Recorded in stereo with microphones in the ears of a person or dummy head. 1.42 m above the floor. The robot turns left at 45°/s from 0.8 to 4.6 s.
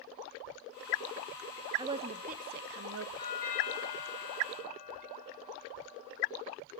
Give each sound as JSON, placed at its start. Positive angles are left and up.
{"t": 1.8, "sound": "a woman speaking", "azimuth_deg": -25, "distance_m": 0.7}
{"t": 3.2, "sound": "a doorbell", "azimuth_deg": 30, "distance_m": 7.5}